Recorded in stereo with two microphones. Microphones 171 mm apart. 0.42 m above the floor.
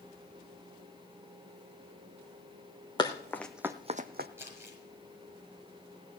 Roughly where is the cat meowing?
I don't hear a cat meowing.